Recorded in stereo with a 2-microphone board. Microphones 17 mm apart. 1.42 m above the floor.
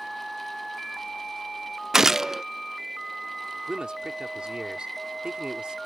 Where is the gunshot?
35° right (ahead or behind).